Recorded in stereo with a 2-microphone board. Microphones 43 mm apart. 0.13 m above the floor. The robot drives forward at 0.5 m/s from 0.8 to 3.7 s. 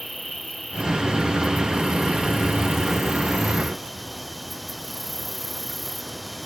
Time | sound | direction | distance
0.0 | an insect | centre (ahead or behind) | ?